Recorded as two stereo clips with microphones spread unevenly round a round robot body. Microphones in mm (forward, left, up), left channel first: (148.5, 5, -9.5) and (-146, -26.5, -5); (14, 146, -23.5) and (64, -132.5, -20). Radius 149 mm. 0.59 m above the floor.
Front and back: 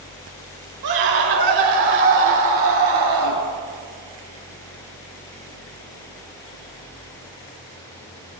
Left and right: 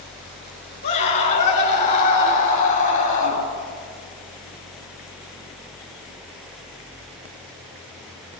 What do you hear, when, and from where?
0.8 s a scream: 170° left, 6.5 m; by 3.4 s 165° left, 8.5 m